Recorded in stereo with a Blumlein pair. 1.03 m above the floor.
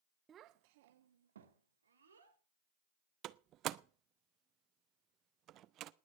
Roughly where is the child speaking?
Ahead.